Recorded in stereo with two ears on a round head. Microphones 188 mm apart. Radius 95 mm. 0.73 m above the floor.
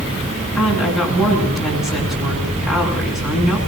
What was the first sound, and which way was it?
A woman speaking, centre (ahead or behind).